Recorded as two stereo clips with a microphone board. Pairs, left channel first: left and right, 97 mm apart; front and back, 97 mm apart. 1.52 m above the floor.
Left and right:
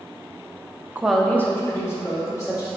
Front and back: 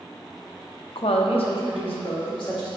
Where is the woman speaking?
20° right, 0.5 m; by 2.7 s 30° left, 3 m.